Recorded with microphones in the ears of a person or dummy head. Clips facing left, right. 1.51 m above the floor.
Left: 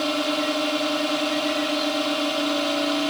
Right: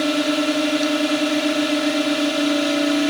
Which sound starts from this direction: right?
A drone, at 0.0 s.